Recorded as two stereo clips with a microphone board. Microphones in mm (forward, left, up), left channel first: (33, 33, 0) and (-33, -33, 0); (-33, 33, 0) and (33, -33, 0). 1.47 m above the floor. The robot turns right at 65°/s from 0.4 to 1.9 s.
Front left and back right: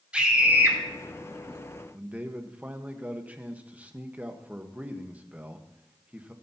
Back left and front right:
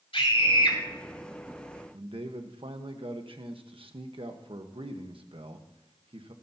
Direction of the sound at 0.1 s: 145° left.